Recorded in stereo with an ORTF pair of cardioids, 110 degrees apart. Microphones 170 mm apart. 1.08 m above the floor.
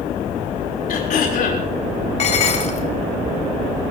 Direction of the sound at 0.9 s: 55° left.